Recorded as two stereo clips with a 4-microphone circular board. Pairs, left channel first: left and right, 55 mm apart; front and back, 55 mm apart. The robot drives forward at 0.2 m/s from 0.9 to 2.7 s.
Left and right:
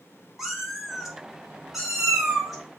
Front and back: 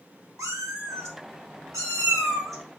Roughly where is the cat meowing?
Behind.